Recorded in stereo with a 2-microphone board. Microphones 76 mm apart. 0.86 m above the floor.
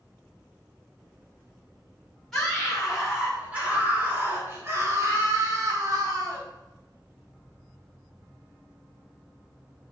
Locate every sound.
2.3 s a scream: 5° left (ahead or behind), 1.9 m; by 6.5 s 55° right (ahead or behind), 2.5 m